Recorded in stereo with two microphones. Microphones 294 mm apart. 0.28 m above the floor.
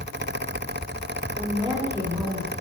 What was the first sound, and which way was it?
A woman speaking, 15° right (ahead or behind).